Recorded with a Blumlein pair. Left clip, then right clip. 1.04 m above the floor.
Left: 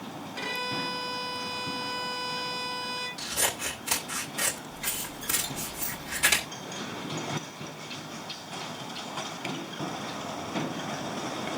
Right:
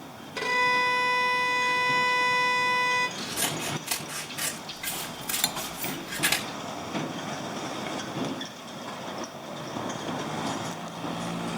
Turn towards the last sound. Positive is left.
turn(degrees=-35)